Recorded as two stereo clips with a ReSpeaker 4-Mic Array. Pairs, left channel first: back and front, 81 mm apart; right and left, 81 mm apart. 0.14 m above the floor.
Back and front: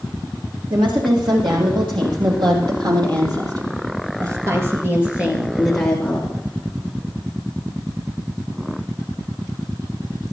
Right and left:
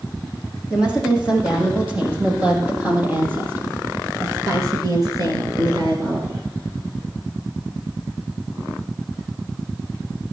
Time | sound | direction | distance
0.7 | a woman speaking | 10° left | 7.5 m